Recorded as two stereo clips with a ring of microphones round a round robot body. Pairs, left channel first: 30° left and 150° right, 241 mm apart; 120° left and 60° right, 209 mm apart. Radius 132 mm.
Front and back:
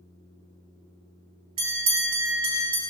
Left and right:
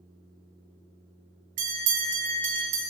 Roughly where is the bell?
Right.